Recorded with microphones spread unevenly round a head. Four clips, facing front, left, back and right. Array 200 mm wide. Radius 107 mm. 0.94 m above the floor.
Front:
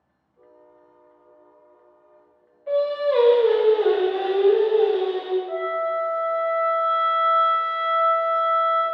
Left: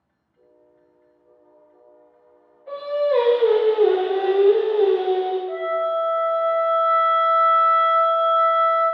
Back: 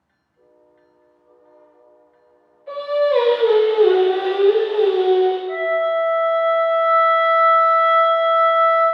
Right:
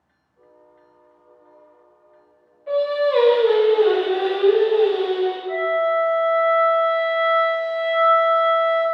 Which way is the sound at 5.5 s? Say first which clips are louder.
Right 3 dB, back 5 dB; 20° left.